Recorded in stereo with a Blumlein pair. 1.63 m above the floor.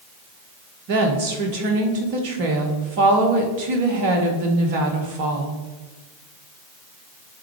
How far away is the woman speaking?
About 1.4 m.